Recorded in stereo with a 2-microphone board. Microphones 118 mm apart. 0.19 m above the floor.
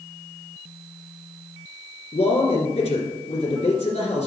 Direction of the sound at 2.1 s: 65° left (ahead or behind).